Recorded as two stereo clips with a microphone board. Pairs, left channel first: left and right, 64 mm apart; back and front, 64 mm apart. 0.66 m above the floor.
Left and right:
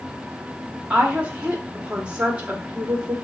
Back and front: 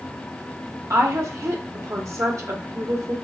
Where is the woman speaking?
25° right, 1.0 m.